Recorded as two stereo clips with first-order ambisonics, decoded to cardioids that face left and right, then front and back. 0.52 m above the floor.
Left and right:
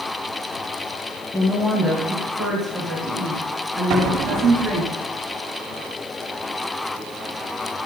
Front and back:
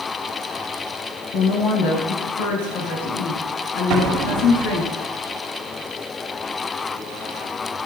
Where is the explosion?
130° right, 2.5 m.